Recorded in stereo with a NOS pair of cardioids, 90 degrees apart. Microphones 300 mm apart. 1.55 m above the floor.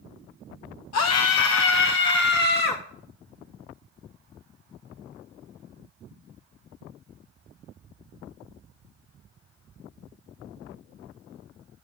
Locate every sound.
0.9 s a scream: 65° left, 0.8 m; by 2.8 s 30° left, 1.5 m